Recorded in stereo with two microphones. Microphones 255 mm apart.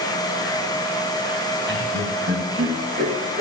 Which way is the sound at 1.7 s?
40° right (ahead or behind).